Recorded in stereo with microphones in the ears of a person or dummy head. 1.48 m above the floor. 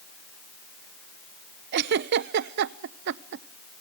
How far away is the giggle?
About 0.6 m.